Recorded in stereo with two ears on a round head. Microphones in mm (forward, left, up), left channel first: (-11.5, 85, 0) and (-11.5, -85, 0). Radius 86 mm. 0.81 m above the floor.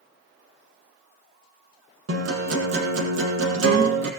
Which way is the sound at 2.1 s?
70° right (ahead or behind).